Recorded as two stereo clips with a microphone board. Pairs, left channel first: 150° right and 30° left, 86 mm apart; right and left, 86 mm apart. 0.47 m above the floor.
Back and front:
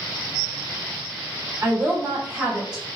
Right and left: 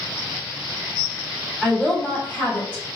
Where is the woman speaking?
15° right, 1.5 m; by 3.0 s 50° right, 1.2 m.